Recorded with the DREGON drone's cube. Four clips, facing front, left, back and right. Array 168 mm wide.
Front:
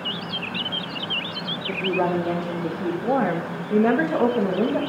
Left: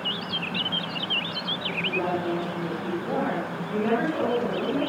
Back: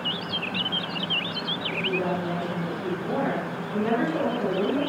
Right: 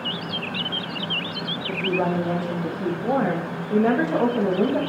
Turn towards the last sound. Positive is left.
turn(degrees=-45)